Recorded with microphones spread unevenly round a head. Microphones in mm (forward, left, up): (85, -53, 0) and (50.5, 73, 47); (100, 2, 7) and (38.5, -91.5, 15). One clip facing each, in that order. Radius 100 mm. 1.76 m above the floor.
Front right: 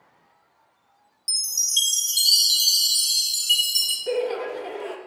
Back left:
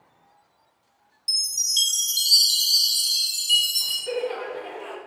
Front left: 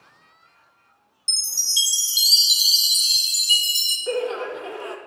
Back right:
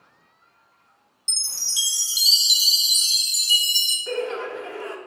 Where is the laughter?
15° right, 0.7 m.